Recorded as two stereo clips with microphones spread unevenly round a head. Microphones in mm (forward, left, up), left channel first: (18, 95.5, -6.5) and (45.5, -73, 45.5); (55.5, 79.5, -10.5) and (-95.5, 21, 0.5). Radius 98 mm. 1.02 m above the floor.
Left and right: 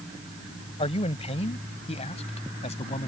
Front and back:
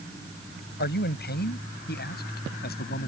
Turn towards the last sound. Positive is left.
turn(degrees=45)